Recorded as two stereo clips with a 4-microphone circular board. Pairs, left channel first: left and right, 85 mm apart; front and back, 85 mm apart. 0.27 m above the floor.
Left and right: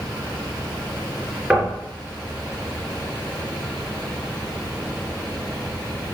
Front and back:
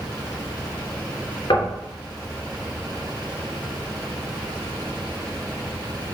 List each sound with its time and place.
1.5 s knocking: 15° right, 2.5 m